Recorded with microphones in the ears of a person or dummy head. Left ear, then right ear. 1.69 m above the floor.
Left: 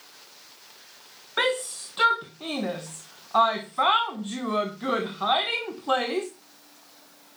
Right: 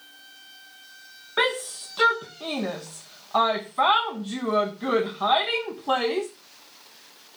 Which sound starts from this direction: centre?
A shout, at 1.4 s.